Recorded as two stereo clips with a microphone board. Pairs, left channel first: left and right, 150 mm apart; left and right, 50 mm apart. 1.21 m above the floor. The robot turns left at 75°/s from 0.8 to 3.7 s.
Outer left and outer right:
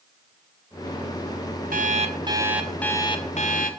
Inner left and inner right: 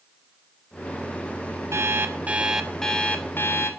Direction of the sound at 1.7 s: 105° right.